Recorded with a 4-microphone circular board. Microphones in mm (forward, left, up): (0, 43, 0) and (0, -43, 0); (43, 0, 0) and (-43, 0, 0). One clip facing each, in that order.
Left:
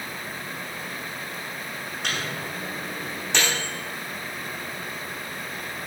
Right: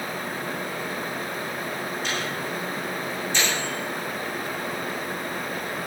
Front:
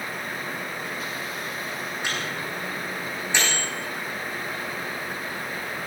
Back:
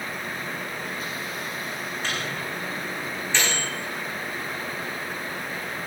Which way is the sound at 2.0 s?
75° left.